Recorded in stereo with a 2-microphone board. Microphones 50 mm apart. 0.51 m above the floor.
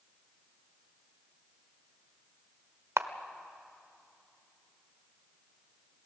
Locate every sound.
3.0 s a camera shutter: 65° right (ahead or behind), 0.9 m